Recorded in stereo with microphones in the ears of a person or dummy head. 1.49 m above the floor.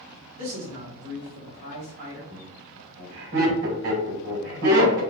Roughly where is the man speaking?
Right.